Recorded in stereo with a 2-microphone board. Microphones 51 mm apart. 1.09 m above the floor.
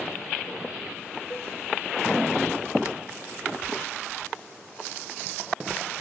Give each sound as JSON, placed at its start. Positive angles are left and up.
{"t": 1.3, "sound": "a cowbell", "side_deg": 50, "distance_m": 2.5}